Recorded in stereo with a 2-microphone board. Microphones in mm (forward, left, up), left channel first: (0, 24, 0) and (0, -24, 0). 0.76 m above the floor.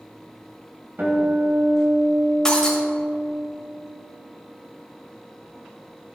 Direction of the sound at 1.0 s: 45° right (ahead or behind).